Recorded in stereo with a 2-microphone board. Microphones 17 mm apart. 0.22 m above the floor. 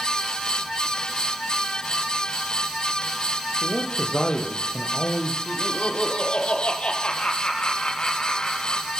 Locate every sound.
3.6 s a man speaking: 60° left (ahead or behind), 6.5 m
5.5 s laughter: 60° left (ahead or behind), 7 m